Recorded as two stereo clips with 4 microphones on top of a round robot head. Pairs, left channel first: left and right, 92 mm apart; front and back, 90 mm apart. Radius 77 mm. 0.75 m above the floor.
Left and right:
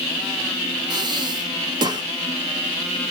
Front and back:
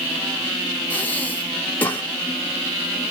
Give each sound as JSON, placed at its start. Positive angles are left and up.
{"t": 0.9, "sound": "breathing", "azimuth_deg": -70, "distance_m": 1.4}